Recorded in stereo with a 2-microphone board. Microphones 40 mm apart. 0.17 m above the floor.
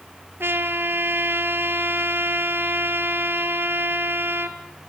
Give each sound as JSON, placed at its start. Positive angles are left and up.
{"t": 0.4, "sound": "a trumpet", "side_deg": -70, "distance_m": 1.9}